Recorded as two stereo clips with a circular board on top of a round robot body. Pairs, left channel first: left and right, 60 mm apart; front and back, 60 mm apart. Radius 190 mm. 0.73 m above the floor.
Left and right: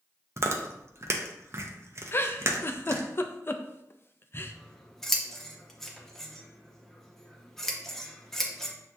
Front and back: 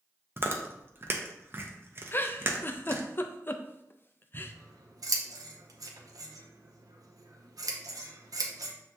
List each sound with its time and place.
0.4 s chewing: 130° right, 0.7 m
2.1 s a giggle: 45° left, 0.5 m
4.3 s scissors: 175° left, 0.7 m